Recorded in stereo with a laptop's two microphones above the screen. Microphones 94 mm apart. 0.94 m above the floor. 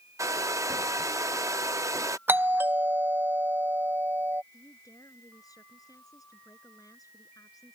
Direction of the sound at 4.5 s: 40° left (ahead or behind).